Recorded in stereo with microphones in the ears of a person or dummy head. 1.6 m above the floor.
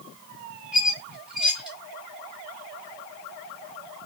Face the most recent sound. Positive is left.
turn(degrees=0)  # may be behind; listen again after turning